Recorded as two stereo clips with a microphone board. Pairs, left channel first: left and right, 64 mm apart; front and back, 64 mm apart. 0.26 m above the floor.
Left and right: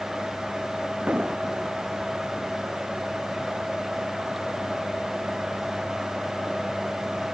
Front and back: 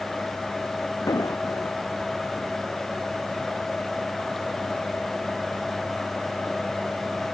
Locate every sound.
1.1 s an explosion: 20° right